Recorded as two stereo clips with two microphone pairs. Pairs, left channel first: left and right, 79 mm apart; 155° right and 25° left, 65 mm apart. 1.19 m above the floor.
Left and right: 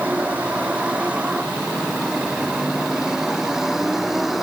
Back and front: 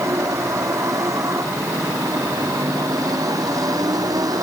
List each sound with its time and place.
0.0 s a vehicle: 15° right; by 4.4 s straight ahead